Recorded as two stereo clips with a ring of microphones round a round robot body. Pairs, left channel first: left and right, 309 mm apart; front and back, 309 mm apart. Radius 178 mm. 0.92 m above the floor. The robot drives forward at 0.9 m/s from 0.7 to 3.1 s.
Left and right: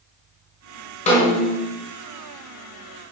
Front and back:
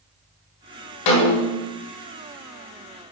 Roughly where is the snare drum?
Ahead.